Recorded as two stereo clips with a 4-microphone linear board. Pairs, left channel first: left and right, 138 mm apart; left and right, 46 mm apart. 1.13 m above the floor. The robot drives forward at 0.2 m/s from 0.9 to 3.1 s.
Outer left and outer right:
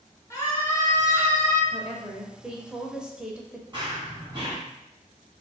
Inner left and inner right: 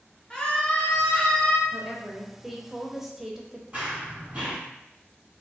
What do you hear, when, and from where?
0.3 s a scream: 20° left (ahead or behind), 1.1 m
1.7 s a woman speaking: 5° right (ahead or behind), 0.7 m
3.7 s running footsteps: 35° right (ahead or behind), 1.3 m